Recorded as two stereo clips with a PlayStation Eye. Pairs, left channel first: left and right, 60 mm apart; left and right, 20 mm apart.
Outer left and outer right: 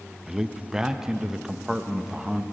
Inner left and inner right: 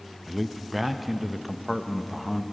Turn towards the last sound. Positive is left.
turn(degrees=-10)  # may be behind; listen again after turning